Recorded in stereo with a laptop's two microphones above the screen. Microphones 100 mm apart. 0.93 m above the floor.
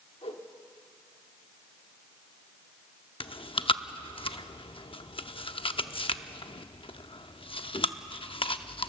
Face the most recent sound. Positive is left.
turn(degrees=60)  # may be behind; listen again after turning